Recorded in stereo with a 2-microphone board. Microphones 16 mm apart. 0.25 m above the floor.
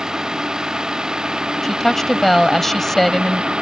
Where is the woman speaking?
15° left (ahead or behind).